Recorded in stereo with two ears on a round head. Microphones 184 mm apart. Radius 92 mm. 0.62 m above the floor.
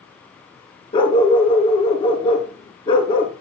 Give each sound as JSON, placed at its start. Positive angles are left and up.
{"t": 0.9, "sound": "a dog barking", "side_deg": 25, "distance_m": 3.5}